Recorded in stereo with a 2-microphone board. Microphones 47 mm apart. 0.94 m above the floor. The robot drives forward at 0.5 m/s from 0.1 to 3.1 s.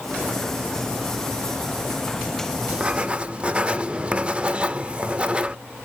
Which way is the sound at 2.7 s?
25° right (ahead or behind).